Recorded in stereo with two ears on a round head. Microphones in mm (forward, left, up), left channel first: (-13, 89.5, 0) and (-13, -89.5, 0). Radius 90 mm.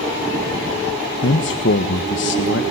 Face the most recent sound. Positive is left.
turn(degrees=60)  # may be behind; listen again after turning